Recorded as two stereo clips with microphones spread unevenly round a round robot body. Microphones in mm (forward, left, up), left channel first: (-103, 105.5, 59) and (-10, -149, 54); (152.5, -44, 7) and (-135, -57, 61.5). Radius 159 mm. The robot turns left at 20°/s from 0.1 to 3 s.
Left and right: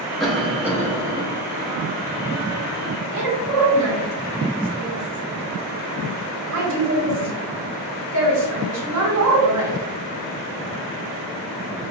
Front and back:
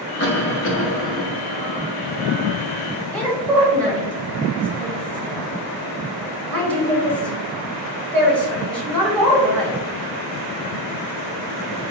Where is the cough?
20° left, 1.0 m; by 1.2 s straight ahead, 1.0 m.